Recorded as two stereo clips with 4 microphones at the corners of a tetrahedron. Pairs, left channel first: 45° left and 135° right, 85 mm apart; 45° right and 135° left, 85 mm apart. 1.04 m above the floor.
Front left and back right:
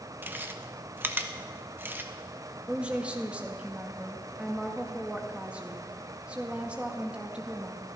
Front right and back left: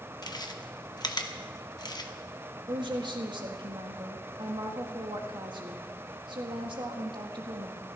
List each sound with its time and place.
0.2 s chewing: 75° right, 1.1 m
2.7 s a woman speaking: 150° left, 1.8 m